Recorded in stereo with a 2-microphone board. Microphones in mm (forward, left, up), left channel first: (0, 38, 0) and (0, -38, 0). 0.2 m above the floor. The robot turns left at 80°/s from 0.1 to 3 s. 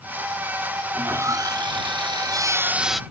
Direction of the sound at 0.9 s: 15° right.